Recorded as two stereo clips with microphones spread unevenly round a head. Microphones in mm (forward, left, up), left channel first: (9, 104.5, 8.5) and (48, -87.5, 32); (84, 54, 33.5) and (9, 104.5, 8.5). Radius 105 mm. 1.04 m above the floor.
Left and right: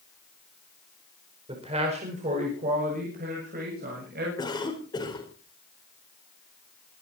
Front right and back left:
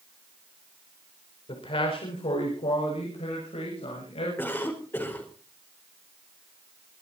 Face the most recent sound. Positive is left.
turn(degrees=30)